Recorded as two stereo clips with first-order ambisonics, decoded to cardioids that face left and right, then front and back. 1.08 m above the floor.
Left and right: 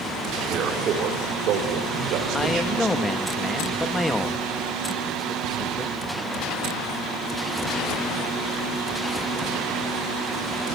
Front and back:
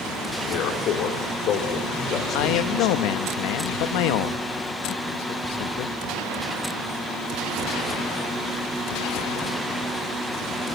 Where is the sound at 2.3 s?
5° left, 1.3 m.